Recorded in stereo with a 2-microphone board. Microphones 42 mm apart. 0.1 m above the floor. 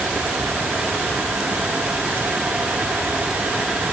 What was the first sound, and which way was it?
Only background noise.